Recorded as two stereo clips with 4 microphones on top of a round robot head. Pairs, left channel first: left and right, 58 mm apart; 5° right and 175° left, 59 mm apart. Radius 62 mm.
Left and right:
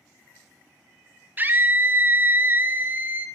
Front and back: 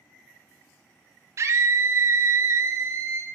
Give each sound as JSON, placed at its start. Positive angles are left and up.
{"t": 1.4, "sound": "a scream", "azimuth_deg": -145, "distance_m": 1.6}